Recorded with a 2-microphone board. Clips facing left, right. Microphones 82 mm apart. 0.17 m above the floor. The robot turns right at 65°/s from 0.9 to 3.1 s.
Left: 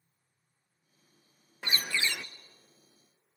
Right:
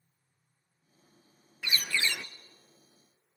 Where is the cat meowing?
No cat meowing in this recording.